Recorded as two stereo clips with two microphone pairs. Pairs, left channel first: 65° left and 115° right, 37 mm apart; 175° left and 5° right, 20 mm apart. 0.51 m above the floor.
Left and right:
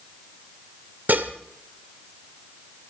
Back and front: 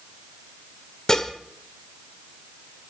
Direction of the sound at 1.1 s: 130° right.